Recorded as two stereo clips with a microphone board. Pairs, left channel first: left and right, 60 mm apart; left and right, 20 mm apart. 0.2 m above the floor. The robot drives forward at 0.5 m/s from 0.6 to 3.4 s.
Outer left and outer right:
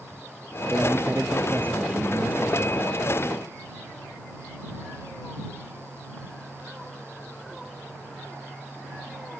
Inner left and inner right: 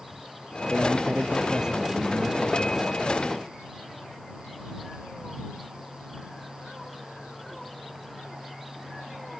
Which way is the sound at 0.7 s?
30° right (ahead or behind).